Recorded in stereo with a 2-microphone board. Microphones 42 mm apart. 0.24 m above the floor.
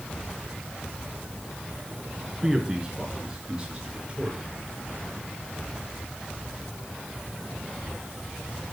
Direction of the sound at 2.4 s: 15° right (ahead or behind).